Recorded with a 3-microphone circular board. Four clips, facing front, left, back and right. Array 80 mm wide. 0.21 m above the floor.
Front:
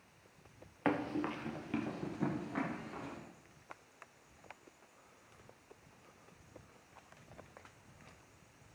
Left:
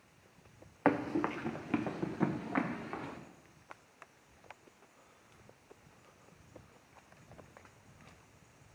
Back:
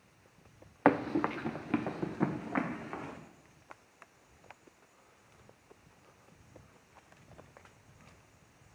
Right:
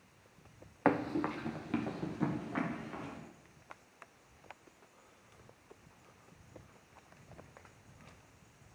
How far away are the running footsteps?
About 0.9 m.